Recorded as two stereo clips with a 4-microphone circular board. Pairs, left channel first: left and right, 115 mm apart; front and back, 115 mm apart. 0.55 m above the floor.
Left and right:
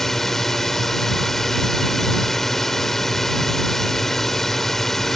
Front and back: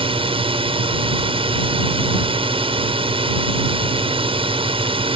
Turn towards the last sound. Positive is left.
turn(degrees=175)